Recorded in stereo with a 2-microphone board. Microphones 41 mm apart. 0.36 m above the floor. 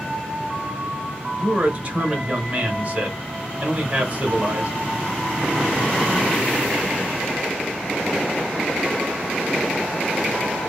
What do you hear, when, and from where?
1.4 s a man speaking: 30° right (ahead or behind), 1.0 m